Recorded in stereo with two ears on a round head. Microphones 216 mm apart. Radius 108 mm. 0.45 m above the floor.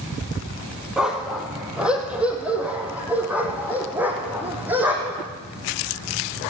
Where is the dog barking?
Centre (ahead or behind), 3 m; by 5.3 s 10° right (ahead or behind), 5.5 m.